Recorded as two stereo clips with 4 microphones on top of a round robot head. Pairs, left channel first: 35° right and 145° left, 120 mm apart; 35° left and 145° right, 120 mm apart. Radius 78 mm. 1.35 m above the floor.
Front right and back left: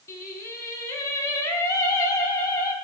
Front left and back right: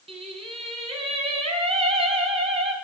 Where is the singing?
100° right, 6 m.